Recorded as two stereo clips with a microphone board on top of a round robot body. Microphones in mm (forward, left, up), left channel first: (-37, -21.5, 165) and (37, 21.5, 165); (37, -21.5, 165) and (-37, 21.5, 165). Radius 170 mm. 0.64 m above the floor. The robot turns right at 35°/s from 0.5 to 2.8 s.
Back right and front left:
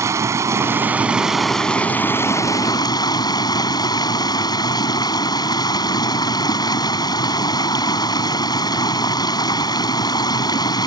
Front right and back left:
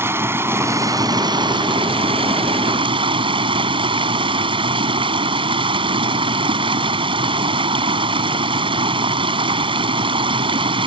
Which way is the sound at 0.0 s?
85° left.